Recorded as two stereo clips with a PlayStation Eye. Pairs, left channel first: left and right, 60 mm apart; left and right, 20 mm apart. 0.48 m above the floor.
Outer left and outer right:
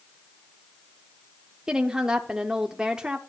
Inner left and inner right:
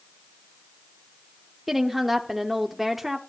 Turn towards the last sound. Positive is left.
turn(degrees=-10)  # may be behind; listen again after turning